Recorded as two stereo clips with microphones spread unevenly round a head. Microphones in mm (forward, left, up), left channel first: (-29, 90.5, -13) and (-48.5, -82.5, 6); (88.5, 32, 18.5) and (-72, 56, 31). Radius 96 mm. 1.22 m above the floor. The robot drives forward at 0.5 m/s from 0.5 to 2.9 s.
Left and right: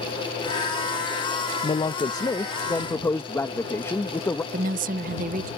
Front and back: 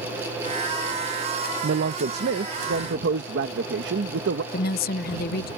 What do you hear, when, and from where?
1.6 s a man speaking: 145° left; by 4.4 s 160° left
4.5 s a woman speaking: 45° right